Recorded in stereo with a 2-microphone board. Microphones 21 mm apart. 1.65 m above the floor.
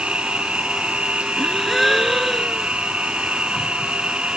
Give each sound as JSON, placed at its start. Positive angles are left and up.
{"t": 0.0, "sound": "an insect", "side_deg": -85}
{"t": 1.4, "sound": "a gasp", "side_deg": 0}